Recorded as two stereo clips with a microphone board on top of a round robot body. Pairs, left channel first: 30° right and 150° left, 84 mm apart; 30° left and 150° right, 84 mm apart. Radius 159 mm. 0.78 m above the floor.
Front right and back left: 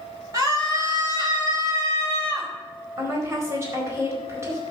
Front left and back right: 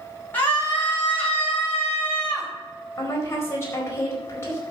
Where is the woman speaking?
90° left, 4.5 m.